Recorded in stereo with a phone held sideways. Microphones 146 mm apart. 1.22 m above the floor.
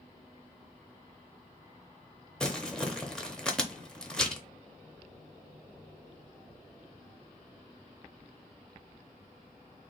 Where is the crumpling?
5° left (ahead or behind), 0.6 m.